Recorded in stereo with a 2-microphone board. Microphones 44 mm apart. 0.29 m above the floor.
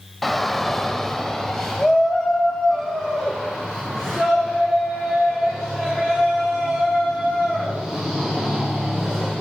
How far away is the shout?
About 1.1 m.